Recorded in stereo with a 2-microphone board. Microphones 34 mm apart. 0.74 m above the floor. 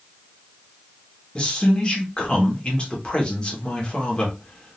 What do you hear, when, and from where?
1.4 s a man speaking: 30° left (ahead or behind), 1.4 m